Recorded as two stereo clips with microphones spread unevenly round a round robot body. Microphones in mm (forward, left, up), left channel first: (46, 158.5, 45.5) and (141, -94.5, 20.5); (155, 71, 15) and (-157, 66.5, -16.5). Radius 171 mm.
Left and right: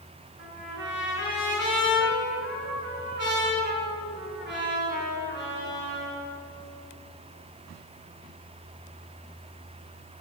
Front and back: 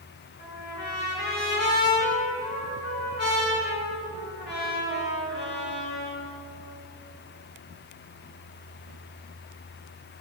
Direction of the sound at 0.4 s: 25° right.